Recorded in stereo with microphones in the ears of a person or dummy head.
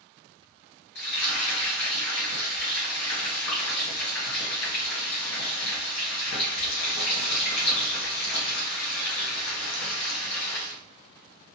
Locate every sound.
0.9 s frying: 75° left (ahead or behind), 1.3 m